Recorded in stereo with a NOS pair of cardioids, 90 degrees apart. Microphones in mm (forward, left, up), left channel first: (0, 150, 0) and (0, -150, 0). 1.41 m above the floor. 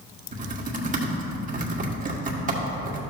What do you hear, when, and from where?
0.3 s typing on a keyboard: 25° right, 1.6 m